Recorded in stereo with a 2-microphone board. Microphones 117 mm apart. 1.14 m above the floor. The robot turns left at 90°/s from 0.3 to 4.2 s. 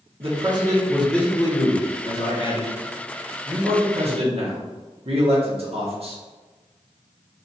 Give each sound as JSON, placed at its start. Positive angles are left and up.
{"t": 0.2, "sound": "a man speaking", "azimuth_deg": -115, "distance_m": 1.2}